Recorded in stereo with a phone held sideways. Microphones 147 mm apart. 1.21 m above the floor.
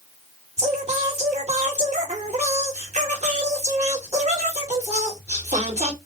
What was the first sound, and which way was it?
Singing, 50° right (ahead or behind).